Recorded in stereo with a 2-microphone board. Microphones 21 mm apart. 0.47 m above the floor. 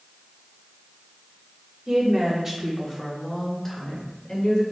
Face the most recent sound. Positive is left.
turn(degrees=25)  # may be behind; listen again after turning